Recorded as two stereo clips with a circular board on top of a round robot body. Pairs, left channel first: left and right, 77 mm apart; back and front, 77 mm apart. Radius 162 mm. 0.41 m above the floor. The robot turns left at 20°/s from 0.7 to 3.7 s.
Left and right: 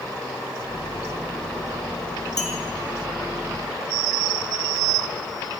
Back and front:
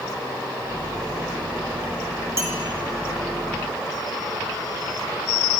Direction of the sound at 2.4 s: 55° left.